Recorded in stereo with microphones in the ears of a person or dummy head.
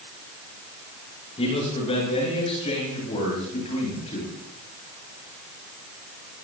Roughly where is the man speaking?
Left.